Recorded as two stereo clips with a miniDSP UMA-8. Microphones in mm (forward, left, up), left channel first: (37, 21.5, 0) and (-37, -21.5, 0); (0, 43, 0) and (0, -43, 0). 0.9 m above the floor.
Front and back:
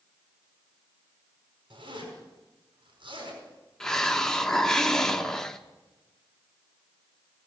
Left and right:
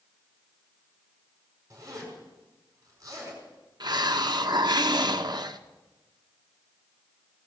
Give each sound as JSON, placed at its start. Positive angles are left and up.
{"t": 1.7, "sound": "a zipper", "azimuth_deg": -140, "distance_m": 5.0}
{"t": 3.8, "sound": "a hiss", "azimuth_deg": -55, "distance_m": 0.9}